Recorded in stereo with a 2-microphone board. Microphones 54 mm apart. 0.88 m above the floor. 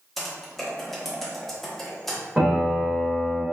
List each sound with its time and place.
0.2 s typing on a keyboard: 5° left (ahead or behind), 0.8 m
2.4 s a piano: 10° right (ahead or behind), 1.1 m